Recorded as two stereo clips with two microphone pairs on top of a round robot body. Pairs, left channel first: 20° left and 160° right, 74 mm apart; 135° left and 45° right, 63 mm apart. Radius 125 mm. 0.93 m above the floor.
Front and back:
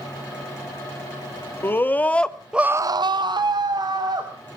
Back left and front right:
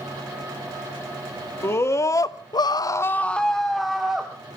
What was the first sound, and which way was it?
A scream, 85° left.